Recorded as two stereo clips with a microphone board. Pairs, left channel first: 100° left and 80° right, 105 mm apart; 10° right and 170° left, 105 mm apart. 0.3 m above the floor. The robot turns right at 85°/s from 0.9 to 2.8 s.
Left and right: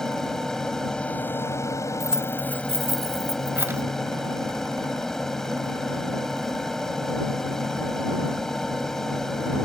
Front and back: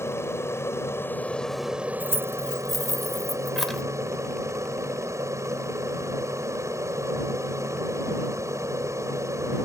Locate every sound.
0.0 s an aircraft: 20° left; by 9.7 s straight behind
2.0 s keys jangling: 165° right; by 3.8 s 95° right